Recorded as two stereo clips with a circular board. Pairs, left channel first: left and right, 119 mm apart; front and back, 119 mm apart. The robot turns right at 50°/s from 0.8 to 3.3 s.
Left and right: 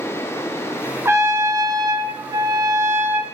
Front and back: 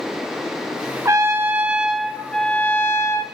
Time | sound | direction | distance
1.1 | a trumpet | 140° right | 1.4 m